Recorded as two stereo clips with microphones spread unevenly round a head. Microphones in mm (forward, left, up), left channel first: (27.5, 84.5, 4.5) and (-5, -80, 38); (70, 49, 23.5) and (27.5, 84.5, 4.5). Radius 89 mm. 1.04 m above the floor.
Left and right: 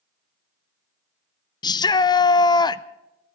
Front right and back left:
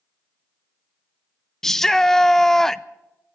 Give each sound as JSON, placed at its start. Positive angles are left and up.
{"t": 1.6, "sound": "a shout", "azimuth_deg": 65, "distance_m": 0.6}